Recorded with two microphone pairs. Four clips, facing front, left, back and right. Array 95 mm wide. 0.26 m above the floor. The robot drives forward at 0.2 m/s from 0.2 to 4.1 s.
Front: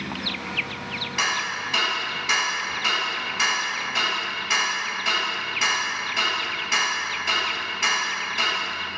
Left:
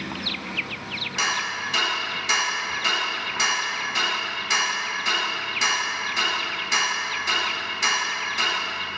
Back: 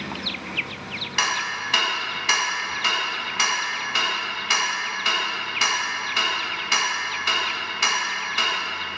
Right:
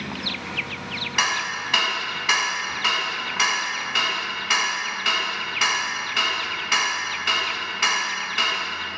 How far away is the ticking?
About 0.9 m.